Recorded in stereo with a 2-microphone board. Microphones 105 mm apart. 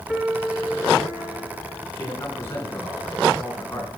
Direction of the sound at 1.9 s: 25° left (ahead or behind).